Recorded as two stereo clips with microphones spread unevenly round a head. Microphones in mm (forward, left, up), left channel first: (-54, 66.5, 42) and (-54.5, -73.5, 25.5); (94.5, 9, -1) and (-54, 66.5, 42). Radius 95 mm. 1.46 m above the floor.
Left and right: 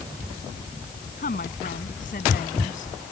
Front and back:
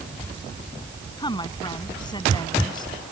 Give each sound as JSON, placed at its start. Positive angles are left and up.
{"t": 1.2, "sound": "a woman speaking", "azimuth_deg": 45}